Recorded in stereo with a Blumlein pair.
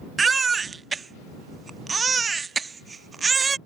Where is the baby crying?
15° right.